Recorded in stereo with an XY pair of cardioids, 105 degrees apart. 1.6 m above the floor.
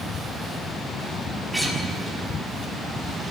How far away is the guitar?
About 6 m.